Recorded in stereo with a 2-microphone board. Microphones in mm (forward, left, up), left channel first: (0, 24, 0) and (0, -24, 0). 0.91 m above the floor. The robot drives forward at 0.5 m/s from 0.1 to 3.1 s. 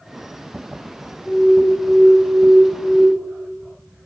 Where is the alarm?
10° left (ahead or behind), 8.5 m.